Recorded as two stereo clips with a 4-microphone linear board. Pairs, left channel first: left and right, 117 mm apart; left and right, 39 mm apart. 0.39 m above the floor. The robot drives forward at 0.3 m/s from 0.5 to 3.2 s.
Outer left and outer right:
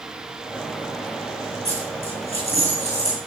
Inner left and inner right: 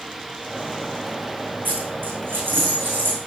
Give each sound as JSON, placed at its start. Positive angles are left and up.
{"t": 1.6, "sound": "a dropped coin", "side_deg": -60, "distance_m": 4.5}